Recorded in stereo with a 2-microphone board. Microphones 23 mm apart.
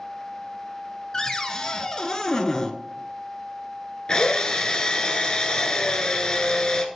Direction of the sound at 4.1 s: 40° left (ahead or behind).